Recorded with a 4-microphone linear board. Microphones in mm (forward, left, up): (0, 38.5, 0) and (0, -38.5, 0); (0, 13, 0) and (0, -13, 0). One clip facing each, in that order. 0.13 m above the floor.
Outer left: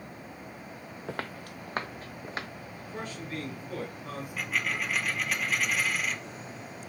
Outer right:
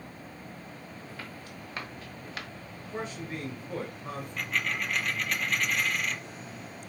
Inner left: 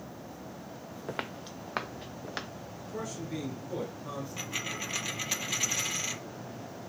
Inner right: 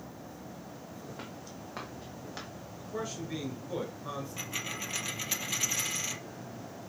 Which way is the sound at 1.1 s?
70° left (ahead or behind).